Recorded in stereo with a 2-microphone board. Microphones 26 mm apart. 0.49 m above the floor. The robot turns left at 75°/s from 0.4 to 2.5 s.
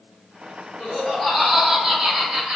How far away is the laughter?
About 1.4 m.